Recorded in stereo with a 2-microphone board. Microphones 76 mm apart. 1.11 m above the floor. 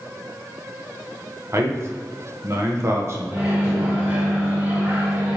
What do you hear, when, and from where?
1.5 s a man speaking: 35° right (ahead or behind), 0.6 m
3.3 s a microwave: 35° right (ahead or behind), 1.7 m